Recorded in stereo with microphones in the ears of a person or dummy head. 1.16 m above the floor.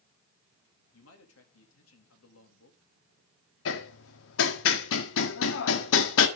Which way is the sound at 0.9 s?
75° left (ahead or behind).